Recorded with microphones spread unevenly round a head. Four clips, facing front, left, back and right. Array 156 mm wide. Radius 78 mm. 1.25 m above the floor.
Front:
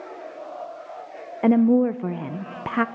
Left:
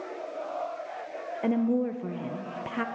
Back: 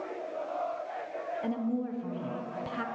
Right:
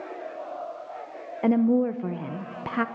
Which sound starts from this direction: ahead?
A woman speaking, at 1.4 s.